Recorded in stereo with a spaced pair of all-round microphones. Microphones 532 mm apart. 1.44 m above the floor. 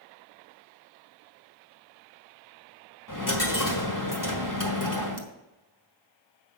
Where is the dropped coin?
35° left (ahead or behind), 1.4 m.